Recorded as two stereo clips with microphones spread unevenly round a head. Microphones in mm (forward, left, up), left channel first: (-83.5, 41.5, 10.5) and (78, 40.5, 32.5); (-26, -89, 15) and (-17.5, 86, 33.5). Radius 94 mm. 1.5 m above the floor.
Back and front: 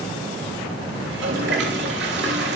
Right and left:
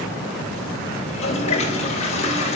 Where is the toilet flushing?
35° right, 3.5 m.